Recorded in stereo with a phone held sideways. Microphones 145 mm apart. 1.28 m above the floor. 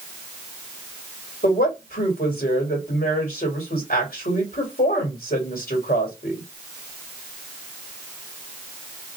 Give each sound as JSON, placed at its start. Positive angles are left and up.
{"t": 1.4, "sound": "a woman speaking", "side_deg": 90, "distance_m": 2.5}